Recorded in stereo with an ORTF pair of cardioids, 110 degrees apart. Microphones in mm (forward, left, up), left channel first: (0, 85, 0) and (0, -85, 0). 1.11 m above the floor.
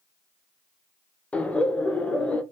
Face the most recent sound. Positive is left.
turn(degrees=5)